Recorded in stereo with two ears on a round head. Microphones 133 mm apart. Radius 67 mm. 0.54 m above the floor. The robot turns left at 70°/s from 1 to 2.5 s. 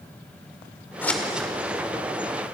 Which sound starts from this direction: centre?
Scissors, at 1.0 s.